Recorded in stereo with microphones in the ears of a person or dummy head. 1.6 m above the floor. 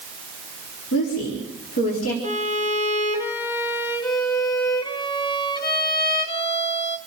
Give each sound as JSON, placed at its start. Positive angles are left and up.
{"t": 0.9, "sound": "a woman speaking", "side_deg": 70, "distance_m": 4.0}
{"t": 2.2, "sound": "a violin", "side_deg": 20, "distance_m": 1.3}